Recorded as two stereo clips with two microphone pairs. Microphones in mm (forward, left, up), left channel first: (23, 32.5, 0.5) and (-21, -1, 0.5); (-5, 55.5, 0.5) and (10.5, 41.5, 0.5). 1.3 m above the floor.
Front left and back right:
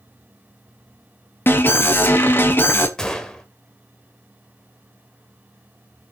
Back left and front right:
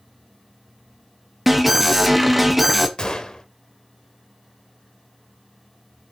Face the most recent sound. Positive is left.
turn(degrees=115)